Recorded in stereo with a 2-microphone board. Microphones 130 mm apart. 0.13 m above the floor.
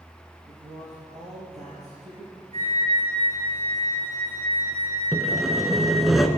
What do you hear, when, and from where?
0.5 s a man speaking: 55° right (ahead or behind), 3 m
2.5 s a flute: 55° right (ahead or behind), 3 m
5.1 s sawing: centre (ahead or behind), 0.8 m